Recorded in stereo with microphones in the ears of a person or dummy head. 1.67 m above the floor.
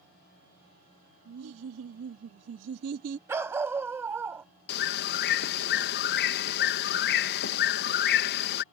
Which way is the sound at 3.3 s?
15° right (ahead or behind).